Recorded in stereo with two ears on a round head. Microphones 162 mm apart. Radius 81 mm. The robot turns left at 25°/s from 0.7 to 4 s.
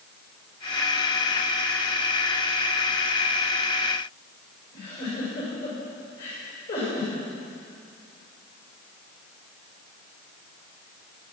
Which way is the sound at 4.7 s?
60° left (ahead or behind).